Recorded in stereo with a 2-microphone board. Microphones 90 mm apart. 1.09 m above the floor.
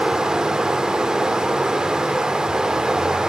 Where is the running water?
5° right (ahead or behind), 0.8 m.